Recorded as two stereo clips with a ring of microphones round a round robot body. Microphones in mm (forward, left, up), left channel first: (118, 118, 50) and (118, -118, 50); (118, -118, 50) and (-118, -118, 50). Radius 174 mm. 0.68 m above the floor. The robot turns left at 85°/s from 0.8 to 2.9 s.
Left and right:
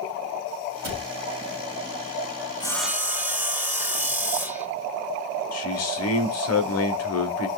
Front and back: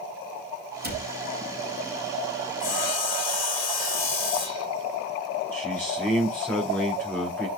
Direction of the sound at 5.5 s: 85° left.